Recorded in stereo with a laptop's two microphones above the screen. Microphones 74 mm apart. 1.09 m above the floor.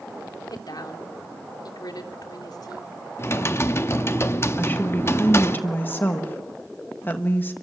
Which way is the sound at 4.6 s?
30° left (ahead or behind).